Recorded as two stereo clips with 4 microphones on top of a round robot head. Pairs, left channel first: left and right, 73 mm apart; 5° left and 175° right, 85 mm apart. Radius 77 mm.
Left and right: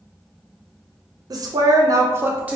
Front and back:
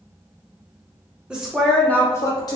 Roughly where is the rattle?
No rattle in this recording.